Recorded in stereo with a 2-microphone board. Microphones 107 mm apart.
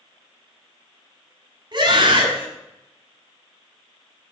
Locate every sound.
1.7 s a scream: 45° right (ahead or behind), 6.5 m